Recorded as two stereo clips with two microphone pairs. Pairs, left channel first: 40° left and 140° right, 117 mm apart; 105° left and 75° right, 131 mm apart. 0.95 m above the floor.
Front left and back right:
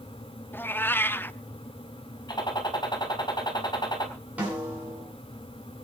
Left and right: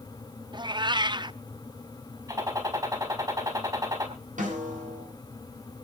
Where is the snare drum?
60° right, 8 m.